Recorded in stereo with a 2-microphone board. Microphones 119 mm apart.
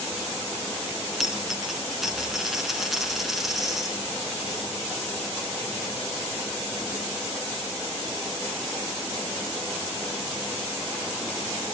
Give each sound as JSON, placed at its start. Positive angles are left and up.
{"t": 1.2, "sound": "a dropped coin", "side_deg": 0, "distance_m": 3.0}